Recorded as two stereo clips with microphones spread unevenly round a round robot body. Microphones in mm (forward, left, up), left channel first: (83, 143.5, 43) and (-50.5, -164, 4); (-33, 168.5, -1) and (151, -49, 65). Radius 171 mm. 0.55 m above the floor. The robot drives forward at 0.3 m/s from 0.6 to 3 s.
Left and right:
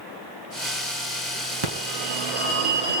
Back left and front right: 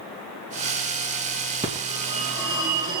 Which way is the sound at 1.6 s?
125° right.